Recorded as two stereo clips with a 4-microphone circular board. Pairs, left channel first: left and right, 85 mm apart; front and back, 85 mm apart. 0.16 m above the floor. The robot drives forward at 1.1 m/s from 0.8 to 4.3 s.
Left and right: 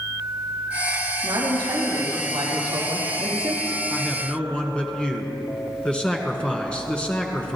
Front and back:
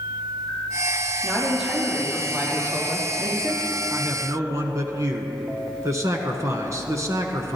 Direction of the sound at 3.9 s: 150° left.